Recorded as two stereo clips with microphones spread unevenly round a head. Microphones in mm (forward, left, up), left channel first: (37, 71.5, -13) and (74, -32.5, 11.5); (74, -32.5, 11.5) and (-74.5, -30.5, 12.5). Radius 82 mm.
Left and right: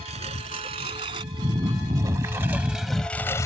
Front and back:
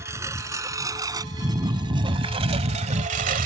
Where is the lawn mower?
110° right; by 3.5 s straight behind.